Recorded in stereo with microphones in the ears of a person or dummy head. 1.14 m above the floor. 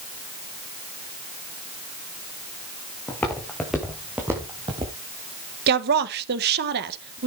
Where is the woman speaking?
50° right (ahead or behind), 1.2 m.